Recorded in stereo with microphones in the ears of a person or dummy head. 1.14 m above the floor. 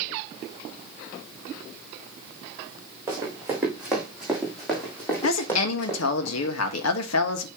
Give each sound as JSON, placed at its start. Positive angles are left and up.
{"t": 3.1, "sound": "running footsteps", "side_deg": -15, "distance_m": 4.0}
{"t": 5.2, "sound": "a woman speaking", "side_deg": 80, "distance_m": 1.3}